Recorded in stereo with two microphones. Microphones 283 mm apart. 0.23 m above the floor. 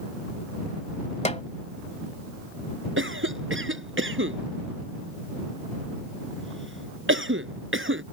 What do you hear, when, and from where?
1.2 s a snare drum: 25° left (ahead or behind)
3.0 s a cough: 45° right (ahead or behind)